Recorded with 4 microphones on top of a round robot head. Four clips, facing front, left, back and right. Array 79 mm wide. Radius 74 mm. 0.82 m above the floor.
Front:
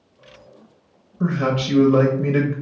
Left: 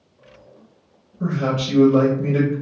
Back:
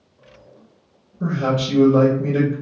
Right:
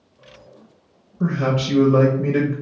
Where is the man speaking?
20° right, 0.8 m.